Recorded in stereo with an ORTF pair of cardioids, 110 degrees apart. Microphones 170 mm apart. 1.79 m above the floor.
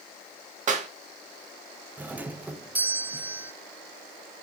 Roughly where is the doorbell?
Ahead.